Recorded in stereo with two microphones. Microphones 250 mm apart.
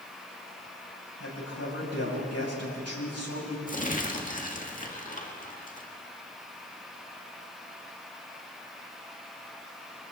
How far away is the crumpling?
About 1.9 m.